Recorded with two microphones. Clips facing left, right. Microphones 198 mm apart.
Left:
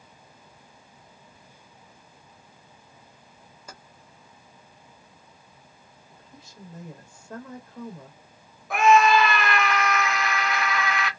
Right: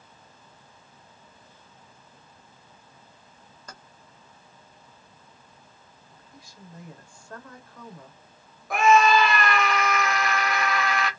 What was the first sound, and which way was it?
Keys jangling, 10° left (ahead or behind).